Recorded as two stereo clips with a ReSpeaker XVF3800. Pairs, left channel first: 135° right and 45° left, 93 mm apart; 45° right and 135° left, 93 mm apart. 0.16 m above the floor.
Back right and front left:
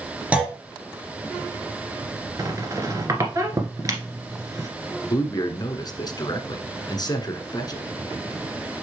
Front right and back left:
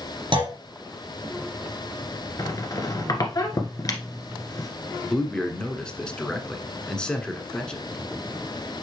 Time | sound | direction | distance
0.3 | a clunk | 120° left | 1.8 m
2.4 | a squeak | straight ahead | 1.5 m
5.0 | a man speaking | 120° right | 1.6 m